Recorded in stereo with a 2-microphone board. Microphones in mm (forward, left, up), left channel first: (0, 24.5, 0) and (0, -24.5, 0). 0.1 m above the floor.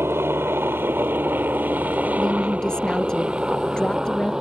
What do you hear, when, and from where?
0.0 s a helicopter: 55° right (ahead or behind); by 4.4 s 10° right (ahead or behind)
2.2 s a woman speaking: 15° left (ahead or behind)